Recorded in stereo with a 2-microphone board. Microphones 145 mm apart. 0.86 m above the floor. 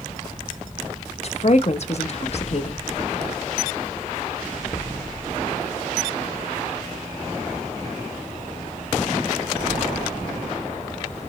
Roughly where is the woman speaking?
Left.